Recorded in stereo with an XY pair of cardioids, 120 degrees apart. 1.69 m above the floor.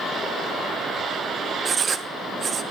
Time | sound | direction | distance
1.6 | writing | 40° right | 0.5 m